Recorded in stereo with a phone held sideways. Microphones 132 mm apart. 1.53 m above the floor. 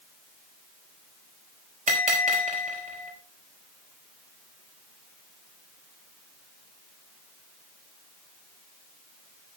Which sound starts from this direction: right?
A bell, at 1.9 s.